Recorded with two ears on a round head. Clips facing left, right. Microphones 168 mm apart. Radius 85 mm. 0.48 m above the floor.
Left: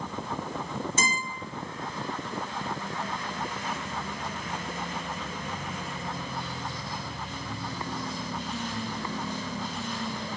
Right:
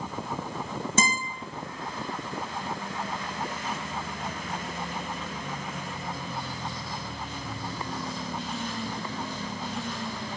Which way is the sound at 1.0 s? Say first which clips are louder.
Right 3 dB; 65° right (ahead or behind).